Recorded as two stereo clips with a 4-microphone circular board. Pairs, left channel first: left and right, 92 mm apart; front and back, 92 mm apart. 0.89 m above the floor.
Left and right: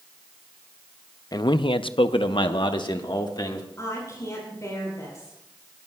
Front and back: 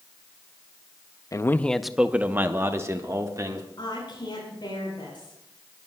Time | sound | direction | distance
1.3 | a man speaking | 50° left | 0.6 m
3.8 | a woman speaking | 35° left | 10 m